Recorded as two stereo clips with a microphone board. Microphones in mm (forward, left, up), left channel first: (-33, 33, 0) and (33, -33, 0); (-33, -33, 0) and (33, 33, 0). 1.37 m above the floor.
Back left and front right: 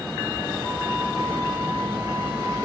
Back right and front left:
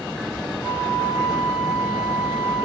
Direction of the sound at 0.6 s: 75° right.